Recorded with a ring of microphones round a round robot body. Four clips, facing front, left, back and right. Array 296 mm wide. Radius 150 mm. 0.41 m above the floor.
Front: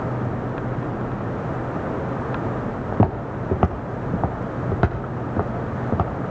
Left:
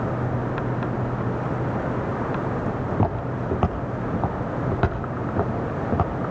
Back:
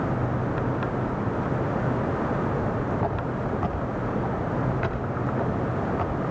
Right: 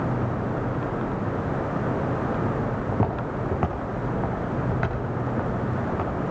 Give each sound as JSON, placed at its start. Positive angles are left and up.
{"t": 2.9, "sound": "footsteps", "azimuth_deg": 5, "distance_m": 2.5}